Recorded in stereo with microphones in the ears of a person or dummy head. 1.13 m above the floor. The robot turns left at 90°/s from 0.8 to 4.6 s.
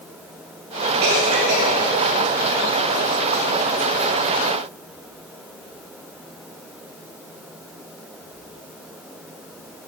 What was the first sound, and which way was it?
A cough, 65° right (ahead or behind).